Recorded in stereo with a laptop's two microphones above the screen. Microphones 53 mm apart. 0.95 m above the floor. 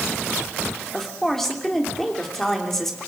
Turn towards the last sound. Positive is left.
turn(degrees=5)  # may be behind; listen again after turning